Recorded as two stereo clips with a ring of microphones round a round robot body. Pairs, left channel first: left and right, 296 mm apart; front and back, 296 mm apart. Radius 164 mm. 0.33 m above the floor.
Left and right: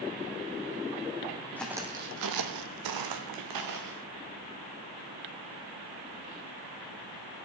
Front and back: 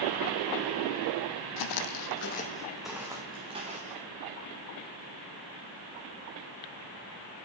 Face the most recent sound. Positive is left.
turn(degrees=-110)